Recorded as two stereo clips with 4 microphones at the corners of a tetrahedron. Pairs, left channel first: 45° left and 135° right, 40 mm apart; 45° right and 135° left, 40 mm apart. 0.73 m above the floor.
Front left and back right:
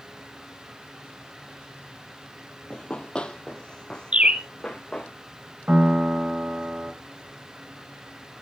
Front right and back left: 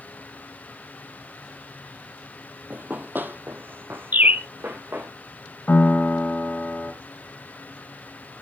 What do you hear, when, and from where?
2.7 s running footsteps: 105° left, 1.1 m; by 5.1 s 120° left, 4 m
4.1 s a bird: 165° left, 1.4 m
5.7 s a piano: 80° right, 3.5 m